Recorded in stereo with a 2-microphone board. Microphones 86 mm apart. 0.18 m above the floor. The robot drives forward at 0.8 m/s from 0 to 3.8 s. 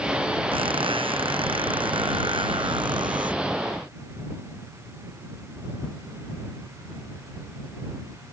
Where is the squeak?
85° right; by 3.4 s 65° right (ahead or behind).